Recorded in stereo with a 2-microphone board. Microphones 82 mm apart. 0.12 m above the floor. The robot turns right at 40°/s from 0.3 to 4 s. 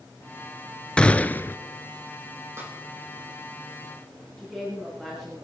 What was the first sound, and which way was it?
A gunshot, 10° left (ahead or behind).